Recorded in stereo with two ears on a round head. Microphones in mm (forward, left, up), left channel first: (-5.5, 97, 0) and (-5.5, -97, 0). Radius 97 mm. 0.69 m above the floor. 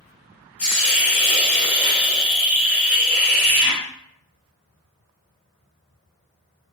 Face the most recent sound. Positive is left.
turn(degrees=10)  # may be behind; listen again after turning